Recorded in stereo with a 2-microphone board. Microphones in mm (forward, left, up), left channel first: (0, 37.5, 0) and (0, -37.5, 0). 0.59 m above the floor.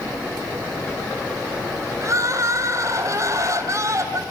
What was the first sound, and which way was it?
Crying, 45° right (ahead or behind).